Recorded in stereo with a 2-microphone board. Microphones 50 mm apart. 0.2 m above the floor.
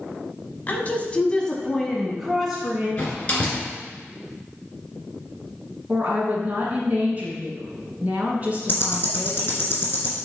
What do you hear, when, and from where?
0.7 s a woman speaking: 35° left (ahead or behind), 1.1 m; by 2.9 s 10° right (ahead or behind), 1.7 m
3.0 s a door slam: 25° left (ahead or behind), 2.5 m
5.9 s a woman speaking: 30° right (ahead or behind), 1.9 m
8.7 s ticking: 45° left (ahead or behind), 2 m